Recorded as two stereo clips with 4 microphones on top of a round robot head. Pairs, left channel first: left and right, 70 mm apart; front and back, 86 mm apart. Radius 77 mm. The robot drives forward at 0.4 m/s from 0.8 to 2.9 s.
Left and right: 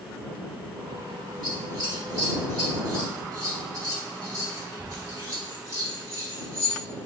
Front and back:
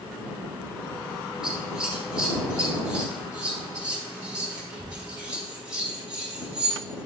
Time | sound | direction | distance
1.4 | scissors | 100° right | 1.9 m